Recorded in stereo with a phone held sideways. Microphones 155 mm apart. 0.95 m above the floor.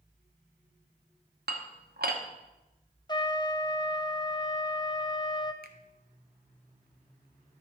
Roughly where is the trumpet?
Left.